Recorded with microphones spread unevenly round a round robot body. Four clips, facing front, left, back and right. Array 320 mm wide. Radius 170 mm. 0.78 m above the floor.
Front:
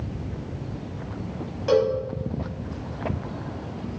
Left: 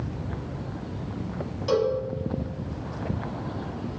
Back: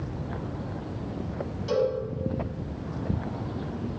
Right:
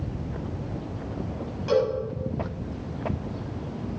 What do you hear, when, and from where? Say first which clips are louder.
1.7 s a cowbell: even, front 5 dB; 20° left, 5.5 m